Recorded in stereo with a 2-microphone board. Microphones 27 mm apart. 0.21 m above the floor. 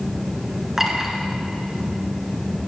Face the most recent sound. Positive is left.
turn(degrees=-15)  # may be behind; listen again after turning